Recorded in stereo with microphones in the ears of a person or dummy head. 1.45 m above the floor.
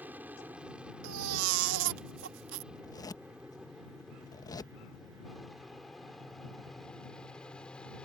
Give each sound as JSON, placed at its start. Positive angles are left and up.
{"t": 0.0, "sound": "an aircraft", "side_deg": -5}
{"t": 1.0, "sound": "a baby crying", "side_deg": -75}
{"t": 2.7, "sound": "a zipper", "side_deg": 20}